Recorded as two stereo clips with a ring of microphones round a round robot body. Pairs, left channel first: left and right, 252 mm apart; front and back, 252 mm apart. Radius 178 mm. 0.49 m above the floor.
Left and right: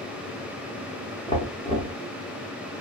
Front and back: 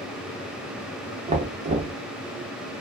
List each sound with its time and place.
1.3 s knocking: 140° left, 0.6 m